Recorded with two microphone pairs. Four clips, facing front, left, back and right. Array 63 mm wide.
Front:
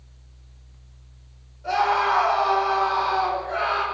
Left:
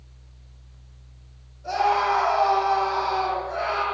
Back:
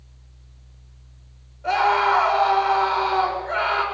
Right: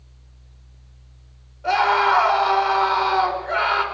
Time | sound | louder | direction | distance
1.6 | a scream | right 4 dB, back 2 dB | 120° right | 5 m